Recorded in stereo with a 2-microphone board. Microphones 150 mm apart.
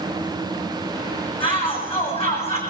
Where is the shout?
35° left (ahead or behind), 9 m; by 2.6 s 45° left (ahead or behind), 8.5 m.